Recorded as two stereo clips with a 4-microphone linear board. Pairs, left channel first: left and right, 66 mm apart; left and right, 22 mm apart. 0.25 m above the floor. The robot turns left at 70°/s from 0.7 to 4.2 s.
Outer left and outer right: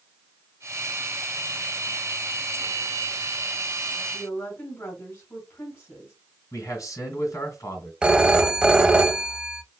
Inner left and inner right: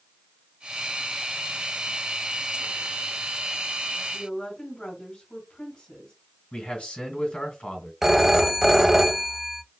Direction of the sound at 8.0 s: 15° right (ahead or behind).